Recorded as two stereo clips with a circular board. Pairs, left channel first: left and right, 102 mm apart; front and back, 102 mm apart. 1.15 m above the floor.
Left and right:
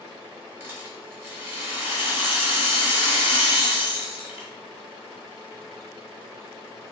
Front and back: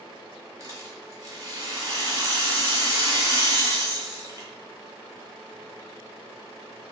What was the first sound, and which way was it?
A rattle, 150° right.